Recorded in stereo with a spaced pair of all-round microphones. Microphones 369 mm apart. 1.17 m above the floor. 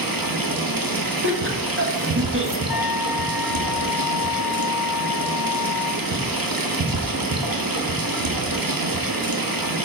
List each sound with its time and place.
0.0 s running water: 65° right (ahead or behind), 1.0 m
1.2 s laughter: 35° right (ahead or behind), 1.7 m
2.7 s a trumpet: 75° left (ahead or behind), 0.8 m